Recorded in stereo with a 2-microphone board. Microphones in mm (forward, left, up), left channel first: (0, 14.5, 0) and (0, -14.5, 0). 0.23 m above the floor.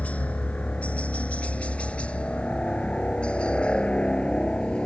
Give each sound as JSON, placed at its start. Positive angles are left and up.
{"t": 0.0, "sound": "a helicopter", "side_deg": 50}